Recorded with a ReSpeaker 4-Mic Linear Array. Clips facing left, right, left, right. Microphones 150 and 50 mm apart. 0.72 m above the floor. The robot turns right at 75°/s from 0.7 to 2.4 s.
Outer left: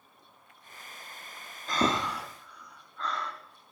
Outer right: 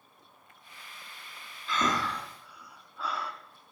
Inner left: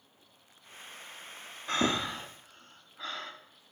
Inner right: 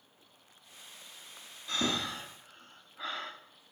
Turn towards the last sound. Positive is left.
turn(degrees=-10)  # may be behind; listen again after turning